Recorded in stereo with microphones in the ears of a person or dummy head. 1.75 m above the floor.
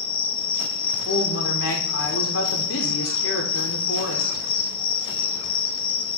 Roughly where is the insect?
Left.